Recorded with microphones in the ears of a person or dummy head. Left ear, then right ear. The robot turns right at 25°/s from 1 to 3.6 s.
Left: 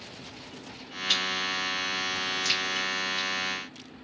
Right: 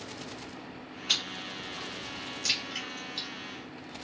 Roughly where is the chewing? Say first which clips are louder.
Left 4 dB; right.